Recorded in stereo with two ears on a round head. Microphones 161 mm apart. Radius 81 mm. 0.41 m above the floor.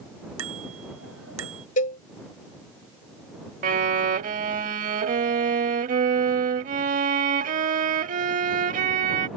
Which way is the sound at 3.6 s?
45° right (ahead or behind).